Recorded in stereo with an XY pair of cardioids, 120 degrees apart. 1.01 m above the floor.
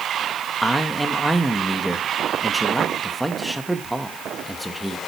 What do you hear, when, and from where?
0.6 s a man speaking: straight ahead, 1.1 m